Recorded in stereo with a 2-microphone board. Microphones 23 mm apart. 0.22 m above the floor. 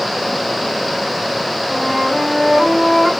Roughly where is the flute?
Centre.